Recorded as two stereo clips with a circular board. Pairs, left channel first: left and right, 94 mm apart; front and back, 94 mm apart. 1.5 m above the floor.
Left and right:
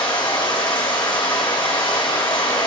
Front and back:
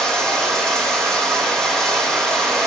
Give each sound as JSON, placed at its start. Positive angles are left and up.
{"t": 0.0, "sound": "running water", "azimuth_deg": 80, "distance_m": 1.6}